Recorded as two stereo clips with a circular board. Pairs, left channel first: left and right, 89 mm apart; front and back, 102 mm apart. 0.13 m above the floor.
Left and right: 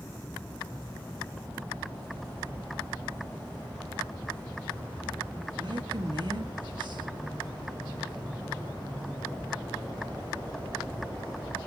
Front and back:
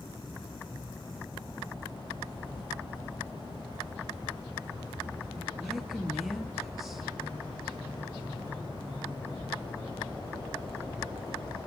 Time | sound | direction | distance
5.6 | a woman speaking | 90° right | 2.5 m